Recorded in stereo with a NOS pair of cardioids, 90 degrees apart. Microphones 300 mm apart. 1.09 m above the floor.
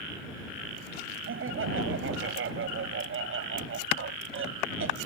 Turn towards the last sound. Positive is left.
turn(degrees=-45)